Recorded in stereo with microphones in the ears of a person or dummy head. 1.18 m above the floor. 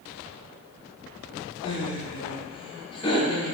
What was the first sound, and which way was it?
Laughter, 25° left (ahead or behind).